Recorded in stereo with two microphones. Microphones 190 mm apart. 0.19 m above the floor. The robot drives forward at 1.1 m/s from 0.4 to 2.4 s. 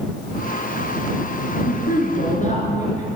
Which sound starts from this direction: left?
A woman speaking, at 1.7 s.